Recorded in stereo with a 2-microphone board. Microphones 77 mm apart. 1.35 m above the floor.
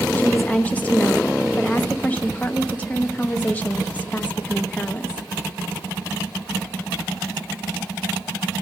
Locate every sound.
0.2 s a woman speaking: 20° left (ahead or behind), 0.8 m